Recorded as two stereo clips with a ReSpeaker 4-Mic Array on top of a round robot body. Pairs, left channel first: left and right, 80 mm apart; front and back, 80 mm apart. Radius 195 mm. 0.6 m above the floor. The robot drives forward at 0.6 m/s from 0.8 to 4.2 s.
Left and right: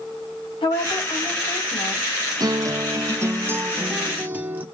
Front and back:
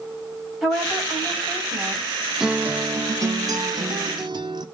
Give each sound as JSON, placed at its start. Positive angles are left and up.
{"t": 0.6, "sound": "a woman speaking", "azimuth_deg": 90, "distance_m": 5.5}
{"t": 2.4, "sound": "a guitar", "azimuth_deg": -100, "distance_m": 0.7}